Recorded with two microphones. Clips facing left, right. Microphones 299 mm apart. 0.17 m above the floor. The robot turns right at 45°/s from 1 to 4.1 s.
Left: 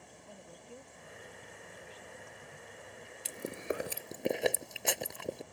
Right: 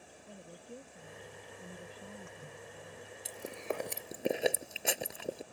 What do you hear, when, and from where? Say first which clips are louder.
0.3 s a woman speaking: right 3 dB; 155° right; by 3.0 s 65° right
3.2 s chewing: left 2 dB; 35° left (ahead or behind); by 5.4 s centre (ahead or behind)